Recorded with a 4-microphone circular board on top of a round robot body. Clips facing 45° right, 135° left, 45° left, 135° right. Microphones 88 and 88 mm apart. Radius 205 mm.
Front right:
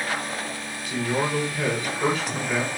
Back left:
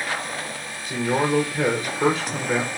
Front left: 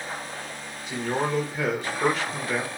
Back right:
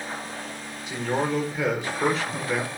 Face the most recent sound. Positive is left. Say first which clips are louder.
# back left 4 dB, back right 1 dB
turn(degrees=135)